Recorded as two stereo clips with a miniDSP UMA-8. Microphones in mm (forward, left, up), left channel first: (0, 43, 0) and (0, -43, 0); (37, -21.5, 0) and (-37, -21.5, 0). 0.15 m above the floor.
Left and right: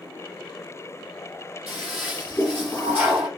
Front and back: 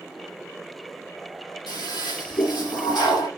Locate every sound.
1.7 s a toilet flushing: 5° right, 5 m